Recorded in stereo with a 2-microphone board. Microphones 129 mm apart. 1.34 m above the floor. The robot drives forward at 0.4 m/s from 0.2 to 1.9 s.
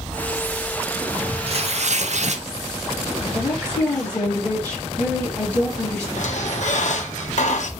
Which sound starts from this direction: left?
A squeak, at 6.2 s.